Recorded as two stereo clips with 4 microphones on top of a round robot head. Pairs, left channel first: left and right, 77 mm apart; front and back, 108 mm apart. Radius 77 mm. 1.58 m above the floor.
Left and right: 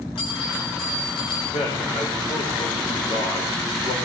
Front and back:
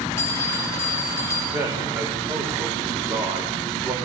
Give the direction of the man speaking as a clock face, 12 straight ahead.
8 o'clock.